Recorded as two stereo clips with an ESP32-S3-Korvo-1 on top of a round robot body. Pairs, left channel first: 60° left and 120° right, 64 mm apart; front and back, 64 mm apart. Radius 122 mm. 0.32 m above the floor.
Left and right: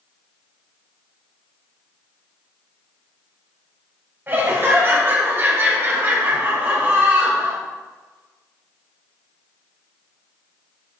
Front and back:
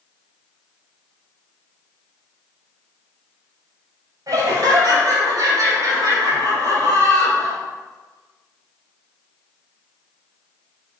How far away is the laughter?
About 2.5 m.